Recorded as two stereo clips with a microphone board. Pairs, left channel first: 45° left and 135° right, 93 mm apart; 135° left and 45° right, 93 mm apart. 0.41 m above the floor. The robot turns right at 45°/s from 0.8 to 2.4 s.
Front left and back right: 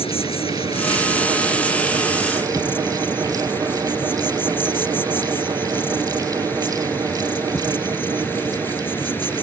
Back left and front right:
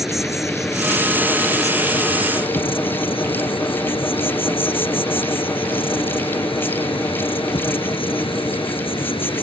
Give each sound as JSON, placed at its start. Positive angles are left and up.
{"t": 0.0, "sound": "an insect", "azimuth_deg": 40}